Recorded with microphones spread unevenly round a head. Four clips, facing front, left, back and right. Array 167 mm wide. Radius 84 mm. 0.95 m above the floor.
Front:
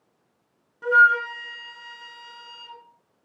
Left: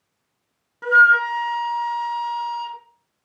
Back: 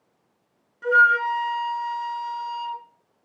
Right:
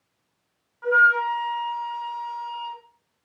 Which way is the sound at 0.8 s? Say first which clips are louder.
Left 4 dB, even; 65° left.